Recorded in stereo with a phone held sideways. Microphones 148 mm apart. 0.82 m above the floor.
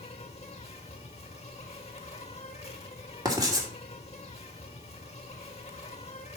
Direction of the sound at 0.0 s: 45° left (ahead or behind).